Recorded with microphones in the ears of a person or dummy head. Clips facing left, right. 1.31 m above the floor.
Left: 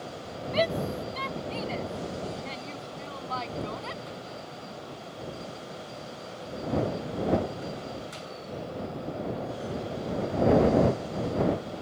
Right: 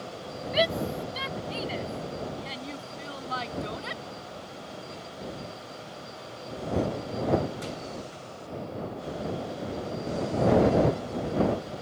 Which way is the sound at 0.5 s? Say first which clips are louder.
Even; 15° right (ahead or behind).